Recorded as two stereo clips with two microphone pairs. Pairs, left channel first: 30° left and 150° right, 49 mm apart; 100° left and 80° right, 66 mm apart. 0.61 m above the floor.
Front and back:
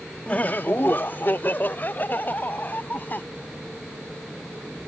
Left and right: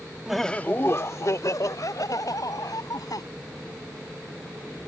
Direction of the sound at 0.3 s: 5° right.